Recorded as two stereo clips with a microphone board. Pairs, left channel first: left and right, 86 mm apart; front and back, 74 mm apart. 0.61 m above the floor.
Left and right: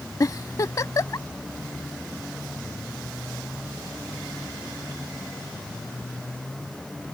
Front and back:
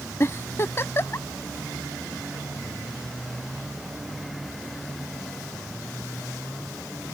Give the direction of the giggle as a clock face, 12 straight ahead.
10 o'clock.